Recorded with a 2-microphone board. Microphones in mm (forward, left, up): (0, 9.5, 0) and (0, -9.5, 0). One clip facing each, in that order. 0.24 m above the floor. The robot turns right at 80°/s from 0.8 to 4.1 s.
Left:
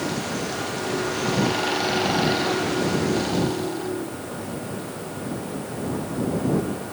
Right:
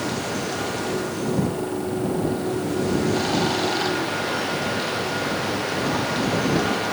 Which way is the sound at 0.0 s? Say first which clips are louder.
Right 1 dB; 5° right.